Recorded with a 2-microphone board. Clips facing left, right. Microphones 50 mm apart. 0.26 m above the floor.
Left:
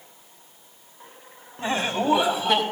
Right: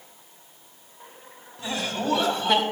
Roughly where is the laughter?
Left.